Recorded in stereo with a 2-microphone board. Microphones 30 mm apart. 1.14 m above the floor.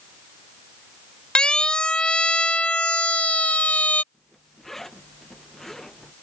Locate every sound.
1.4 s a siren: 25° left (ahead or behind); by 4.0 s 50° left (ahead or behind)
4.1 s a zipper: 10° left (ahead or behind)